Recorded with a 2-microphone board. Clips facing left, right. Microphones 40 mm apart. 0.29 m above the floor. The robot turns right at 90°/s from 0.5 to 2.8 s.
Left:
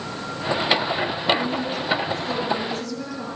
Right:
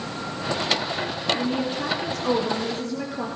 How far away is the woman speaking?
About 6.5 m.